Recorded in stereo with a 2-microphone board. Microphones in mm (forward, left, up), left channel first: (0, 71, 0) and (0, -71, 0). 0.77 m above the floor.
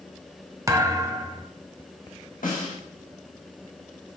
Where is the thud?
25° right (ahead or behind), 1.0 m.